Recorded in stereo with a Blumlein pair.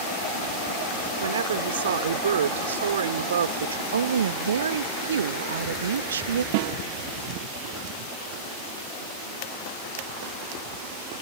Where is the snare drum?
50° right.